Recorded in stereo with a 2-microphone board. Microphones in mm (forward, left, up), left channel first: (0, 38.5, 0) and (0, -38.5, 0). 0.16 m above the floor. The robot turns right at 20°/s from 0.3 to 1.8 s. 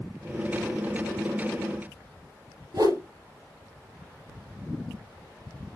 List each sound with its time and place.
2.7 s a whoosh: 65° right (ahead or behind), 2 m